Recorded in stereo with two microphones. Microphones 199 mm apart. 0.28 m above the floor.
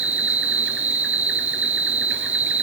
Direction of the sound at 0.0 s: 80° right.